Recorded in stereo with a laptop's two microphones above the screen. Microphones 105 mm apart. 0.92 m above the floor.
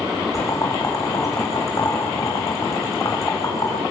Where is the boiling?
35° left (ahead or behind), 6.5 m.